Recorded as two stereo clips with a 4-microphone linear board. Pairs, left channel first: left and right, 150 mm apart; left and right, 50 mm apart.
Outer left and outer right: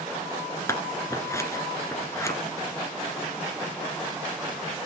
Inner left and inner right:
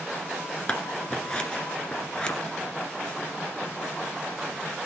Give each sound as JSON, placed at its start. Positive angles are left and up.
{"t": 0.7, "sound": "scissors", "side_deg": 20, "distance_m": 1.5}